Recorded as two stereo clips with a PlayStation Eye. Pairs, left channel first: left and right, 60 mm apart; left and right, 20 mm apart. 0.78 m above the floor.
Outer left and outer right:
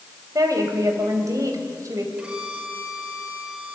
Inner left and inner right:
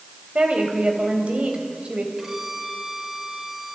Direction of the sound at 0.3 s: 70° right (ahead or behind).